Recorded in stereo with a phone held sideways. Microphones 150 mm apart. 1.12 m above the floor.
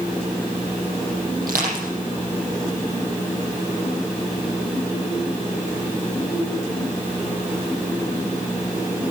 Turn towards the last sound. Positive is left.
turn(degrees=-75)  # may be behind; listen again after turning